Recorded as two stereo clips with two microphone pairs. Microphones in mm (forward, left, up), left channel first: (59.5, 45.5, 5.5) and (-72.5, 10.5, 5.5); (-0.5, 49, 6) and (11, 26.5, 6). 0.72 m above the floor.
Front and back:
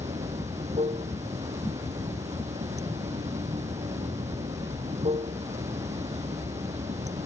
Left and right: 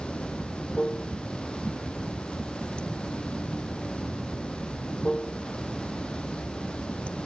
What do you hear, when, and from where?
0.0 s running water: 165° left